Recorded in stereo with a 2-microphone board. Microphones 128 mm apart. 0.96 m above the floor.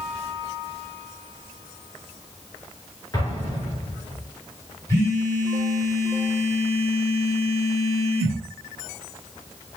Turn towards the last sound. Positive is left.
turn(degrees=25)  # may be behind; listen again after turning